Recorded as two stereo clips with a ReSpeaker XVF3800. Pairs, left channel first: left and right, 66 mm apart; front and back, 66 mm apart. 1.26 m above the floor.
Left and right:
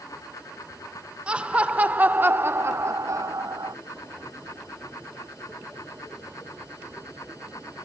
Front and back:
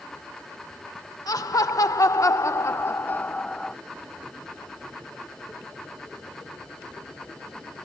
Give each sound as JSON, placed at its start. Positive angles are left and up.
{"t": 1.3, "sound": "laughter", "azimuth_deg": -15}